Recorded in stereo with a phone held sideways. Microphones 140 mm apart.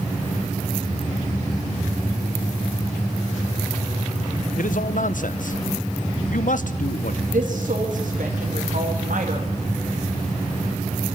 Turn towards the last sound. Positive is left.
turn(degrees=-70)  # may be behind; listen again after turning